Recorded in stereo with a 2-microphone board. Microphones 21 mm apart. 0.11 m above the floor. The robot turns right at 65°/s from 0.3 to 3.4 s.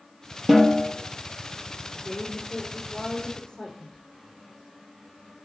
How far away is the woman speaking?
About 4.5 m.